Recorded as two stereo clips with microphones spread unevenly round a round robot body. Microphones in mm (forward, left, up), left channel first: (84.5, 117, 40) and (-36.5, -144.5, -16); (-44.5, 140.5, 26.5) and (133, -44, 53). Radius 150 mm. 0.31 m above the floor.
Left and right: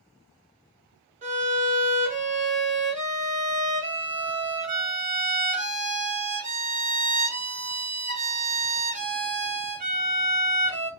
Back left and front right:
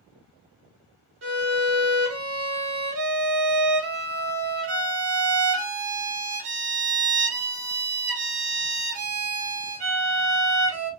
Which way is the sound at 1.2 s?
70° right.